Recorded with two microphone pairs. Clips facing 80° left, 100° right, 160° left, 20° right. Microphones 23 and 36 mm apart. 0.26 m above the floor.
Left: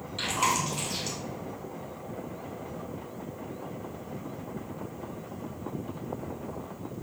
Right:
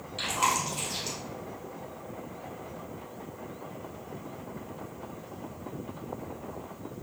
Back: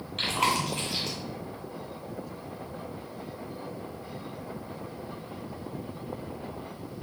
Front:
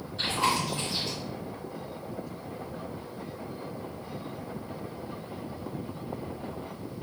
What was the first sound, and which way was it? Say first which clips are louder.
Chewing: even, back 1 dB; 175° left.